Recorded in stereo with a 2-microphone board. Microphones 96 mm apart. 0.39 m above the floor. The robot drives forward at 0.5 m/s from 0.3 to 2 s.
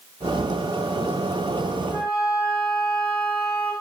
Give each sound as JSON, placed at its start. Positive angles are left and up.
{"t": 1.9, "sound": "a flute", "side_deg": 35, "distance_m": 1.4}